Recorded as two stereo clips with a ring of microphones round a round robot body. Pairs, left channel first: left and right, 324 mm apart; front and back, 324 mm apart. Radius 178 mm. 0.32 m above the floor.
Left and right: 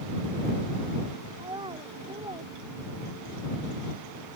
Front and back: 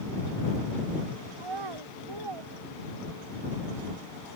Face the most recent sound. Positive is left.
turn(degrees=-165)